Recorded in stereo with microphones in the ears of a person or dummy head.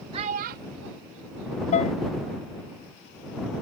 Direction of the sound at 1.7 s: 40° left (ahead or behind).